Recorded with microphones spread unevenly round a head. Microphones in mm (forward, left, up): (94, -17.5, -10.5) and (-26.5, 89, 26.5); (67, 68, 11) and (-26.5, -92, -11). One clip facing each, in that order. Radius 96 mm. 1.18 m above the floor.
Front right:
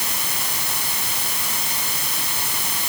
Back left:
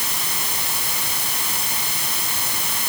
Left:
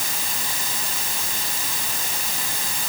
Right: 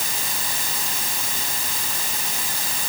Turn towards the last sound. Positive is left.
No sound to turn to.